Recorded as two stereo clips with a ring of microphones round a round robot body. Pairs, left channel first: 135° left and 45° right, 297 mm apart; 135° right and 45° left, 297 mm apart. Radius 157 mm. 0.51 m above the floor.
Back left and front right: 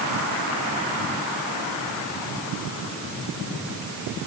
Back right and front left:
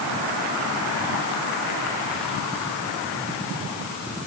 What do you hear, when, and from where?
Only background noise.